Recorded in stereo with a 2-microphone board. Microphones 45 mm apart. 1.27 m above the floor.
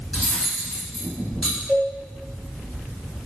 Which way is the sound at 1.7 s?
Centre (ahead or behind).